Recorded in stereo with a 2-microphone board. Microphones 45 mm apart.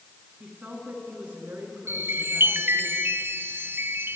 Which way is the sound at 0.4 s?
30° right (ahead or behind).